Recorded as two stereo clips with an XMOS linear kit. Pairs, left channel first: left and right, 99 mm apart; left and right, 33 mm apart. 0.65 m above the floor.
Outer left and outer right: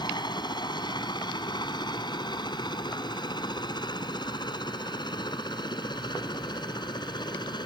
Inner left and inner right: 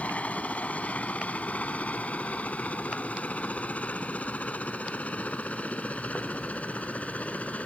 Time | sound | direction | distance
0.0 | a helicopter | 45° left (ahead or behind) | ?